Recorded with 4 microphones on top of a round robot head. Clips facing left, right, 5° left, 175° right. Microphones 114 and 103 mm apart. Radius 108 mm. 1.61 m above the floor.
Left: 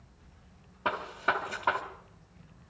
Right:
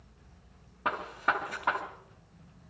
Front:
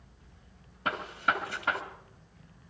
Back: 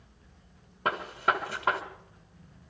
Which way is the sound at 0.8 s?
170° left.